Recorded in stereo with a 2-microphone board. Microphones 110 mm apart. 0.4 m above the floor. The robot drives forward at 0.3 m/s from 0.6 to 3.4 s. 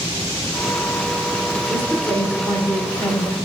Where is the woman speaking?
15° left (ahead or behind), 0.8 m.